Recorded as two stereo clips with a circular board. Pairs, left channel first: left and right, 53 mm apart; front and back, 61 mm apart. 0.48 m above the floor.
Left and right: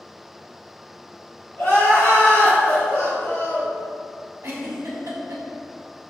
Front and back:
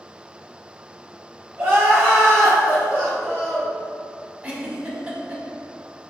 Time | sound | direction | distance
1.6 | crying | 125° left | 1.7 m
4.4 | a giggle | 115° right | 0.6 m